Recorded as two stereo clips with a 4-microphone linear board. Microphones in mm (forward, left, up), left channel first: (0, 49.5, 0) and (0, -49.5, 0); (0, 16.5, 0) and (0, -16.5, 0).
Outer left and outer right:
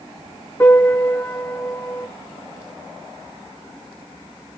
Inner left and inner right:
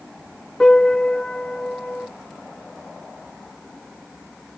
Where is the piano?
30° left (ahead or behind), 4 m.